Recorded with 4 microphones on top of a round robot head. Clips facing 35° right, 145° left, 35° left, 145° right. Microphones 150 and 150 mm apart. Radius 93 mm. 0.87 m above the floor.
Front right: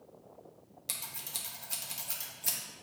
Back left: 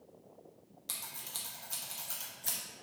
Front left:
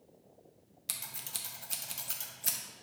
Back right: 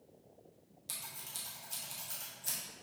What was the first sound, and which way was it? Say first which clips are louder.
Scissors: front right 1 dB, front left 2 dB; 40° left.